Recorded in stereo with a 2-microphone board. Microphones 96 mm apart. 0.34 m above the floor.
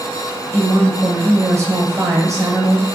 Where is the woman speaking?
30° right (ahead or behind), 1.4 m.